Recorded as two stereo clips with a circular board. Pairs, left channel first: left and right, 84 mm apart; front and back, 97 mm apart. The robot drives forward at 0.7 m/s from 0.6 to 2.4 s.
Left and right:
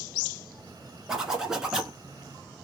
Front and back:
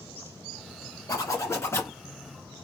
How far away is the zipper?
About 2 m.